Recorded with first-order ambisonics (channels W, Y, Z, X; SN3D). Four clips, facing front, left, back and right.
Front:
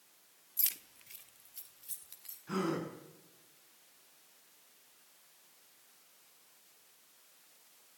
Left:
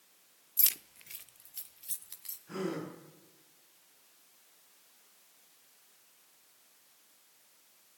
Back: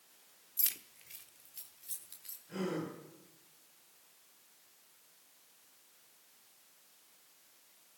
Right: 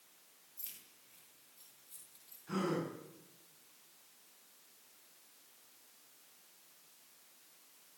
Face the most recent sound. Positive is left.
turn(degrees=-20)